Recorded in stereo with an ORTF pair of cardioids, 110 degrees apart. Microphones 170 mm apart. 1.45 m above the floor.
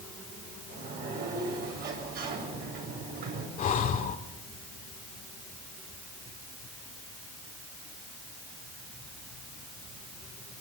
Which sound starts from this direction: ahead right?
A sliding door, at 0.7 s.